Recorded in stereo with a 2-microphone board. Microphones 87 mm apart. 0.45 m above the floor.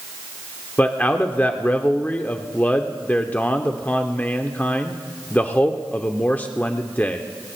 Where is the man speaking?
20° left (ahead or behind), 0.8 m.